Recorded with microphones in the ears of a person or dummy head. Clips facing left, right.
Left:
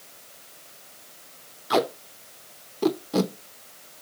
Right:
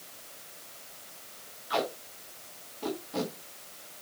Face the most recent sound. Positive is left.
turn(degrees=60)  # may be behind; listen again after turning